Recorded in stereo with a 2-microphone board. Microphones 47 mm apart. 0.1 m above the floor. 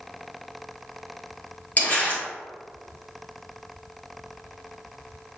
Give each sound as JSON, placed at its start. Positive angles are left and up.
{"t": 1.8, "sound": "crumpling", "side_deg": 35, "distance_m": 1.9}